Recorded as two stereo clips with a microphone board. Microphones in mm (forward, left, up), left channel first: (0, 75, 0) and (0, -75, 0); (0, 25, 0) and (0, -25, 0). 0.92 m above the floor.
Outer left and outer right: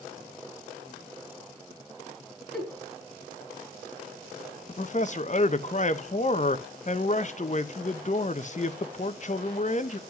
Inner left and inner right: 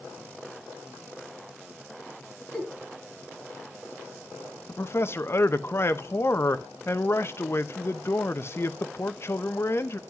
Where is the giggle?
Centre (ahead or behind), 4.5 m.